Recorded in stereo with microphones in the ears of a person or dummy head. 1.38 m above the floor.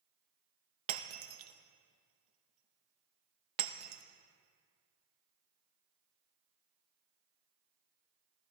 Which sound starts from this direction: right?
Breaking glass, at 0.9 s.